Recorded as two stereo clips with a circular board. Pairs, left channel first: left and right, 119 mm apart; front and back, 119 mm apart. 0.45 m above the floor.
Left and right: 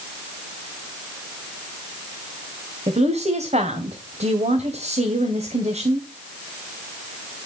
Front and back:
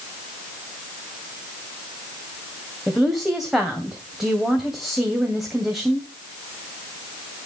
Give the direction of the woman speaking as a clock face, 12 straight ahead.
3 o'clock.